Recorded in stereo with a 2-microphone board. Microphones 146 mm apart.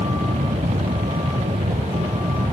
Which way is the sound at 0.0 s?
70° right (ahead or behind).